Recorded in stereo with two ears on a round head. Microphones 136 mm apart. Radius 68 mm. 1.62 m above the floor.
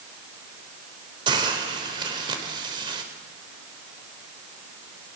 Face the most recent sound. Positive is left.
turn(degrees=-30)  # may be behind; listen again after turning